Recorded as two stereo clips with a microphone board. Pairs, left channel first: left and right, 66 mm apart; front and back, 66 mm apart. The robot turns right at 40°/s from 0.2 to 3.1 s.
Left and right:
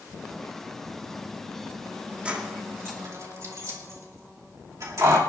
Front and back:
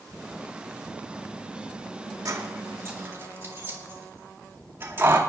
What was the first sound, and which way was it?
Keys jangling, 160° right.